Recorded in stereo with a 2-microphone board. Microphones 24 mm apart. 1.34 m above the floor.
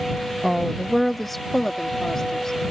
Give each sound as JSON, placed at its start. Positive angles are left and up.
{"t": 0.4, "sound": "a woman speaking", "side_deg": -20}